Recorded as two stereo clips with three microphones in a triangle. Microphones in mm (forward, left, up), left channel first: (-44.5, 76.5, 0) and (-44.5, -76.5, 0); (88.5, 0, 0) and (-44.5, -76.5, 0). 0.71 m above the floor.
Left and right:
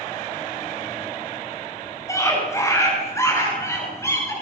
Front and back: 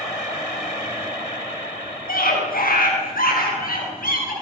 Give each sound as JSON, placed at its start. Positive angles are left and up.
{"t": 2.1, "sound": "a scream", "azimuth_deg": 20, "distance_m": 7.5}